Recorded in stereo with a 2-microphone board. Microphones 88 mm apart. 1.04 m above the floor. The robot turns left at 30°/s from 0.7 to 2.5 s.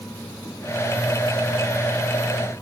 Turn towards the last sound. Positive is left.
No sound to turn to.